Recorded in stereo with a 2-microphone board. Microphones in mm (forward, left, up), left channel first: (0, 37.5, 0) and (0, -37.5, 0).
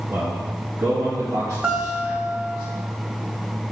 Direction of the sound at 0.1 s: 30° right (ahead or behind).